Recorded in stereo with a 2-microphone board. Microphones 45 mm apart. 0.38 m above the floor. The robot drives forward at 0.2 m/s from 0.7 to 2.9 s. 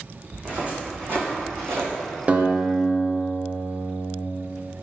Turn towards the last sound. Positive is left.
turn(degrees=-35)  # may be behind; listen again after turning